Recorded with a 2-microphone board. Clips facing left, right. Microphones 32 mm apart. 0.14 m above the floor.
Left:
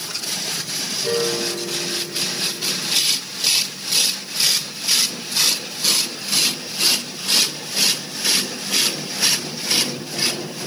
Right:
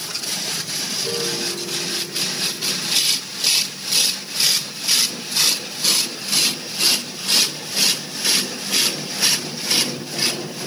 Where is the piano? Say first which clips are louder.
Left 5 dB; 50° left (ahead or behind), 1.2 m.